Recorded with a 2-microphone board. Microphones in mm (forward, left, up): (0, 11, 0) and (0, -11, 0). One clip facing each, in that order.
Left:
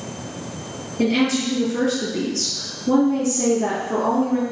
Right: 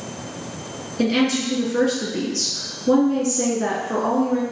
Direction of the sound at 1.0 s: 50° right (ahead or behind).